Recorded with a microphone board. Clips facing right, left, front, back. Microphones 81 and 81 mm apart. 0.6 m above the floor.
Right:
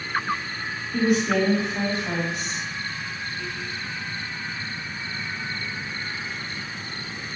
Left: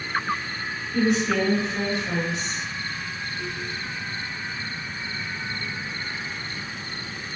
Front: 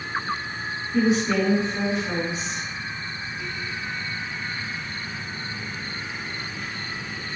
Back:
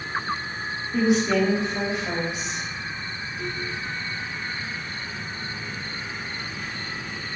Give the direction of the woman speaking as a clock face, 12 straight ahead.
5 o'clock.